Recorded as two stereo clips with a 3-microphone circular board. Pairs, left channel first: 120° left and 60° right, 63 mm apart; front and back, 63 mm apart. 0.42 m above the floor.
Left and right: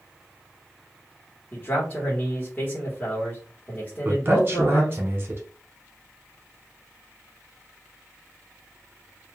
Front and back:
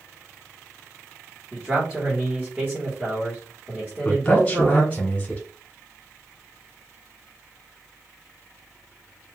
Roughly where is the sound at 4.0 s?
Ahead right.